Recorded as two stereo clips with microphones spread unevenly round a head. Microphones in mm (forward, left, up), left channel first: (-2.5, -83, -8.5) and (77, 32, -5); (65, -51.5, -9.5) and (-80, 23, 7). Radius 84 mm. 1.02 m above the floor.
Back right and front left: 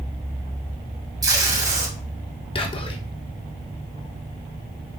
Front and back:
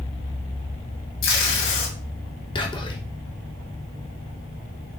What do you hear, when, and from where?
1.2 s tape being pulled: 10° right, 2.5 m
2.5 s whispering: 80° right, 1.0 m